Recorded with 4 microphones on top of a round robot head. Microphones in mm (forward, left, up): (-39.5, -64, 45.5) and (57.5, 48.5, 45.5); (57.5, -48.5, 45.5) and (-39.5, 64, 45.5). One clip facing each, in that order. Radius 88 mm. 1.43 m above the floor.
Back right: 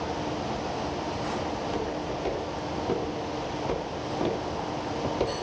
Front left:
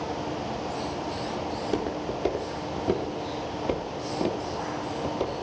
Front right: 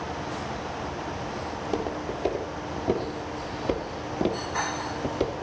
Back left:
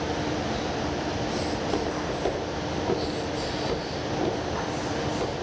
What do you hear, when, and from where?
1.5 s footsteps: 35° left, 3.5 m; by 5.3 s 50° right, 3 m